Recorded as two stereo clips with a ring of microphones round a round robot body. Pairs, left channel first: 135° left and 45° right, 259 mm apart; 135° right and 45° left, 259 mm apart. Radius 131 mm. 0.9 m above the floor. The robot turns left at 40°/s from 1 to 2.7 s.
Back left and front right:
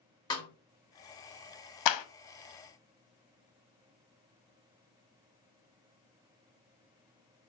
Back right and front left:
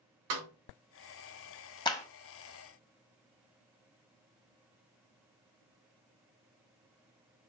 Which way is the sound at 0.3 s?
60° left.